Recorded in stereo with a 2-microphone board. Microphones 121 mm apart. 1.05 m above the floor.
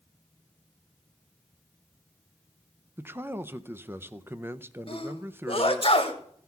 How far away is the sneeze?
About 1.9 m.